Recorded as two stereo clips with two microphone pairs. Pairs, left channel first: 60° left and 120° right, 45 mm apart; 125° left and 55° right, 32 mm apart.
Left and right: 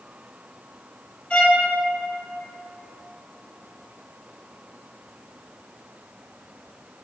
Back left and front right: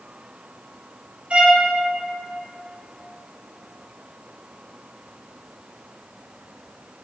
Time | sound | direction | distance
1.3 | a violin | 5° right | 3 m